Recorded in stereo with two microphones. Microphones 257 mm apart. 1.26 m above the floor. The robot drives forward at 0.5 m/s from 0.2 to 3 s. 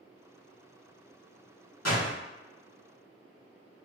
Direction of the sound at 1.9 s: 90° left.